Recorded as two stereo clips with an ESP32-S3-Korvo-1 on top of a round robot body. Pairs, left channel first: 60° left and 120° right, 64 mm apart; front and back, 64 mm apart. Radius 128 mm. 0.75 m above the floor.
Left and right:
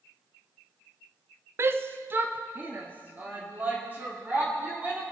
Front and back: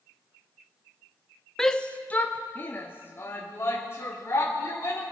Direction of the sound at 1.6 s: 80° right.